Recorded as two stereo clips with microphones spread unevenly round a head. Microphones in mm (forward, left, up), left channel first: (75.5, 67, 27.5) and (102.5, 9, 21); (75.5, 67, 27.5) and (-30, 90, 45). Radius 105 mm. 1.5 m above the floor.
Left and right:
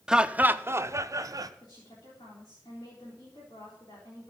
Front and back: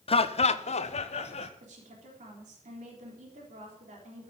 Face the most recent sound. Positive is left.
turn(degrees=170)